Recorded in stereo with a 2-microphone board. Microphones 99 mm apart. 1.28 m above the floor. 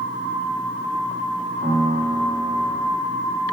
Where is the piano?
75° right (ahead or behind), 1.7 m.